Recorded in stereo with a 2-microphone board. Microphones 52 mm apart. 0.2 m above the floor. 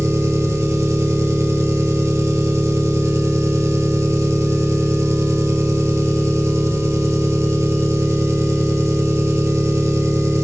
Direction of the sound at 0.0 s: 70° right (ahead or behind).